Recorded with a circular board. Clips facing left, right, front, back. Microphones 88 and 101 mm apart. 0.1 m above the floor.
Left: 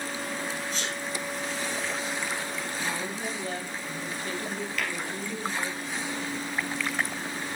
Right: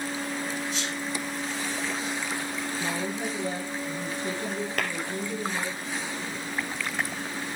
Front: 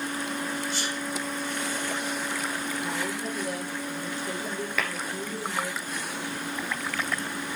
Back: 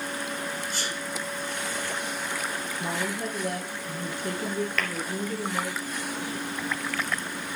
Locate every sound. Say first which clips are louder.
0.7 s a sneeze: right 1 dB, front 1 dB; 140° left, 5 m
2.8 s a woman speaking: right 3 dB, back 1 dB; 155° right, 2.5 m
4.8 s tapping: right 2 dB, even; 85° right, 2.5 m